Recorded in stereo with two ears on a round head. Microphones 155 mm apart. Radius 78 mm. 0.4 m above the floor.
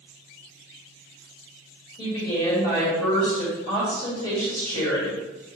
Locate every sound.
2.0 s a woman speaking: 35° left (ahead or behind), 1.6 m